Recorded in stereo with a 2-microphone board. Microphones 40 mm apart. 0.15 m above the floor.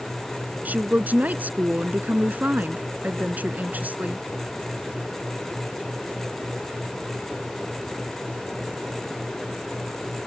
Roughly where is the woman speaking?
Right.